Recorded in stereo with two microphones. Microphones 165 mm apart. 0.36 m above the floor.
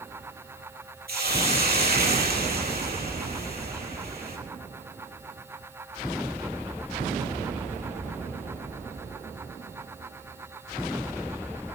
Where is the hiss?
70° right (ahead or behind), 4 m.